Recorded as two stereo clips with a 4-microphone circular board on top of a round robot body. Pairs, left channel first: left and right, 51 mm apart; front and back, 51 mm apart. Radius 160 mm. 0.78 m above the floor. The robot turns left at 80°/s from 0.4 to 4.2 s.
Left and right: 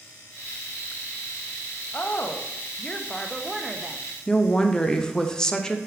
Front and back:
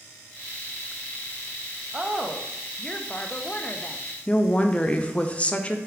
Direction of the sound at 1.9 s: 125° left.